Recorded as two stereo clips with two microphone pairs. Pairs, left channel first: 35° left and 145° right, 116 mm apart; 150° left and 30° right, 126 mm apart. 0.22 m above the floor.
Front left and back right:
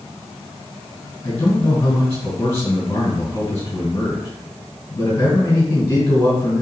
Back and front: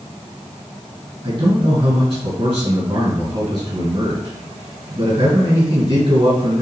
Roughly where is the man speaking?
Ahead right.